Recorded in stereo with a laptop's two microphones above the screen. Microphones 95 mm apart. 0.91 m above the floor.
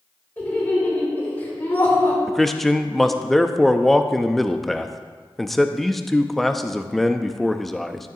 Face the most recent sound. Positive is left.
turn(degrees=0)  # may be behind; listen again after turning